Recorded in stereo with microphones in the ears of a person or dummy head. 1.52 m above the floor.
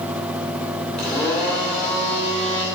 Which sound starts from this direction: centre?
A blender, at 1.0 s.